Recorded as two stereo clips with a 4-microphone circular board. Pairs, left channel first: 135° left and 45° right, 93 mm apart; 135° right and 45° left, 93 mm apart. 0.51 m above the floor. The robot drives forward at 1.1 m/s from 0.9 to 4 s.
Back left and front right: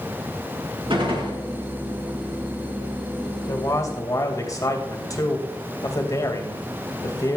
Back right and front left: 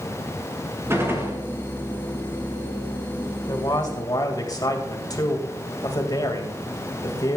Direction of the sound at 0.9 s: 15° right.